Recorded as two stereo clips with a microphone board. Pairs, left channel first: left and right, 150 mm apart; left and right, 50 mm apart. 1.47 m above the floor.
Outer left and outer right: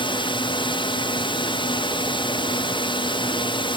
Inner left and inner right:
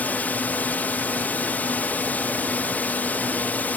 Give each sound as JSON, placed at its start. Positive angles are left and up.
{"t": 0.0, "sound": "a drone", "side_deg": 35}